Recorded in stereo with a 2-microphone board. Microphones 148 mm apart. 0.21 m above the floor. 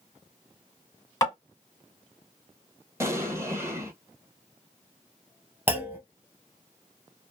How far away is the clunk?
About 0.8 m.